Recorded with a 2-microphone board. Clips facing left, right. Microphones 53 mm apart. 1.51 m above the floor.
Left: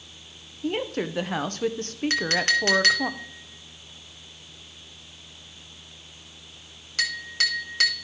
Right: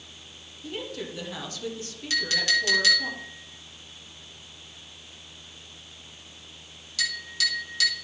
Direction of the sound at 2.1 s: 50° left (ahead or behind).